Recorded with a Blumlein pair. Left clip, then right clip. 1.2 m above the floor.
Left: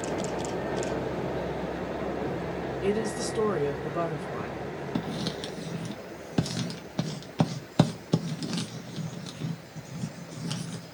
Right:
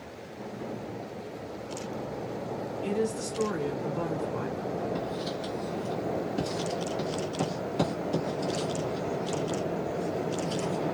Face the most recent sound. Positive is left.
turn(degrees=60)